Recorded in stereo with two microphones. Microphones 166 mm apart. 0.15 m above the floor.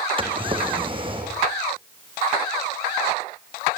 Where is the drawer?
30° right (ahead or behind), 4 m.